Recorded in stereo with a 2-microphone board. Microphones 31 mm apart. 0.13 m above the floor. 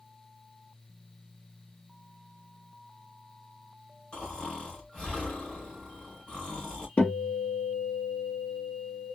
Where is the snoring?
35° left (ahead or behind), 3.5 m.